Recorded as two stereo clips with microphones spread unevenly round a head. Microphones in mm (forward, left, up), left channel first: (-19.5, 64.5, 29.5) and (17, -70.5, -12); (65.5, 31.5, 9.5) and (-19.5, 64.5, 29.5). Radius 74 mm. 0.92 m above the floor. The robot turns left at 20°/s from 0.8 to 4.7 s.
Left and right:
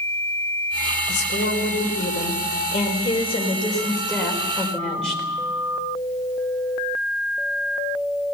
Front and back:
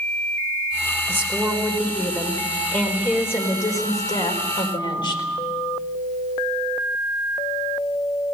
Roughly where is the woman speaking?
Left.